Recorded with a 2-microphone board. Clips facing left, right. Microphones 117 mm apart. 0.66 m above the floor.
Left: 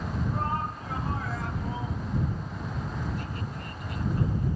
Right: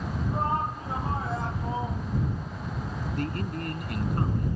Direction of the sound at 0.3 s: 20° right (ahead or behind).